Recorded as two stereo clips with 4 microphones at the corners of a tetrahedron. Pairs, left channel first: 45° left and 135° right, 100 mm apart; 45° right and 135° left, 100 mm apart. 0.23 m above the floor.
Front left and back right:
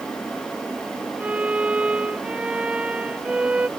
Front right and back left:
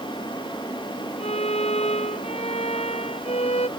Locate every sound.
1.2 s a violin: 55° right